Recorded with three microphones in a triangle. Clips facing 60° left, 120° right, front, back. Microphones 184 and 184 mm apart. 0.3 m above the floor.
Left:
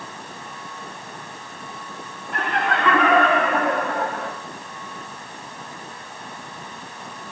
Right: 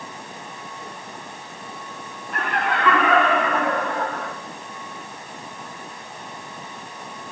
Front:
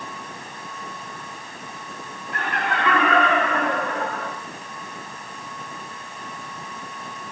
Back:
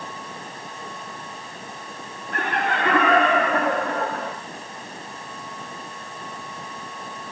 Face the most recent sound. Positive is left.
turn(degrees=135)